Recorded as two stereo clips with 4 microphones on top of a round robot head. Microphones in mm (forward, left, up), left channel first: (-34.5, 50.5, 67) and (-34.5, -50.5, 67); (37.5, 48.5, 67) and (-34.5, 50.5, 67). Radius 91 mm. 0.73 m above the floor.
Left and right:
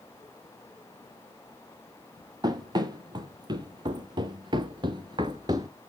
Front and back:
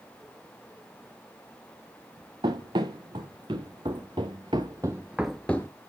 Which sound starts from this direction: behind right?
Running footsteps, at 2.4 s.